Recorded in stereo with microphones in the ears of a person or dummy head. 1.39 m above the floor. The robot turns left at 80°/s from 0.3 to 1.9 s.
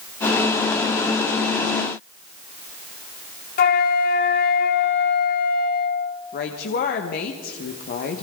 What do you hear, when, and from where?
3.6 s a flute: 40° left (ahead or behind), 2.0 m
6.3 s a woman speaking: 60° left (ahead or behind), 1.5 m